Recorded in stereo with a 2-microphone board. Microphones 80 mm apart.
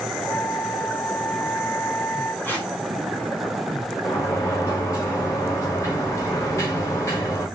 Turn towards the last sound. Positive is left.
turn(degrees=40)  # may be behind; listen again after turning